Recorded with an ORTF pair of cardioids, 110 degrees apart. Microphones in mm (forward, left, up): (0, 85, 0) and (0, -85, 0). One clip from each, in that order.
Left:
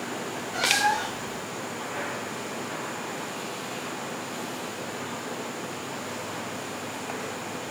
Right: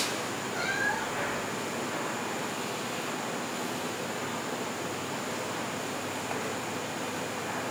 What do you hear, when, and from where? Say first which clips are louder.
0.5 s a cat meowing: left 7 dB; 60° left, 2 m